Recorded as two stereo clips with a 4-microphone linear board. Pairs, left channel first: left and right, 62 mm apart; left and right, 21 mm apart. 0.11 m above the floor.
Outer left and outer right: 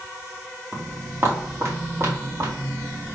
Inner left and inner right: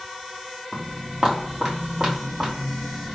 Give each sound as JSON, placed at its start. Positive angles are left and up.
{"t": 0.7, "sound": "footsteps", "side_deg": -30, "distance_m": 1.7}